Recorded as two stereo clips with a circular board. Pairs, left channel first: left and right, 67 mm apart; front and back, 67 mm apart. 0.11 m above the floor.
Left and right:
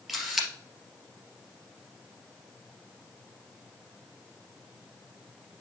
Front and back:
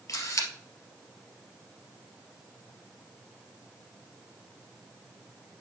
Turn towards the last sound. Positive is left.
turn(degrees=-5)